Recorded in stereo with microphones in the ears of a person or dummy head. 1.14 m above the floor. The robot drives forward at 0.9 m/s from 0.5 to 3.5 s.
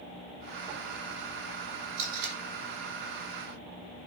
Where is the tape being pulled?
50° right (ahead or behind), 4.5 m.